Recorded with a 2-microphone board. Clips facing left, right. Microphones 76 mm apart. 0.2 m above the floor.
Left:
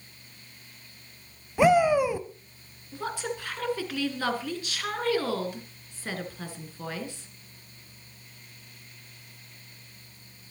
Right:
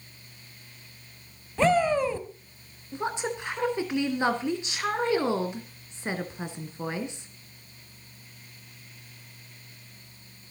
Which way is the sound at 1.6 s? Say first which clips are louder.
Left 2 dB; 10° left (ahead or behind).